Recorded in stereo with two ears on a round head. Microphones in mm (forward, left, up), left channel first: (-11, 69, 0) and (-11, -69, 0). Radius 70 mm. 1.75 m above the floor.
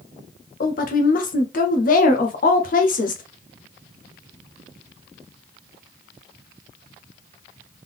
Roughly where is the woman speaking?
Left.